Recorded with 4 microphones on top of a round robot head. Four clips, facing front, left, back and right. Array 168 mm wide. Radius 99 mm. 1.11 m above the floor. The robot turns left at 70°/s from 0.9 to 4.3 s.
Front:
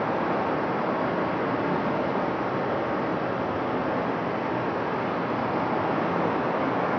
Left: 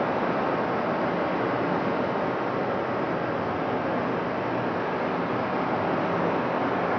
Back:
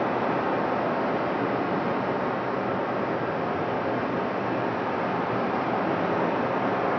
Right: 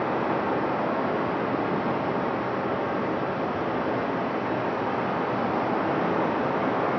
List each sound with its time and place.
0.0 s running water: 130° left, 0.8 m; by 7.0 s 110° right, 0.8 m